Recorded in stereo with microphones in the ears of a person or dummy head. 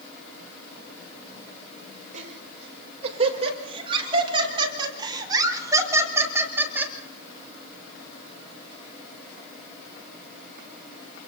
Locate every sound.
2.1 s laughter: 40° right (ahead or behind), 5.5 m; by 6.9 s 10° right (ahead or behind), 4 m